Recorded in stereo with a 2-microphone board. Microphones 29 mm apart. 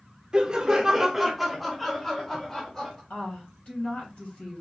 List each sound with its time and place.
0.3 s laughter: 30° right (ahead or behind), 0.9 m; by 3.0 s 20° left (ahead or behind), 1.4 m
3.1 s a woman speaking: 50° left (ahead or behind), 3 m